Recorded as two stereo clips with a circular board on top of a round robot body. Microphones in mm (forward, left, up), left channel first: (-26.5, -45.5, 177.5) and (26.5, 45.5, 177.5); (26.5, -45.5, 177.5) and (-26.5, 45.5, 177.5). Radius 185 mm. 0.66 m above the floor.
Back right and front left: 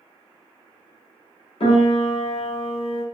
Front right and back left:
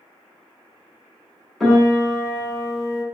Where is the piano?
150° right, 0.9 m.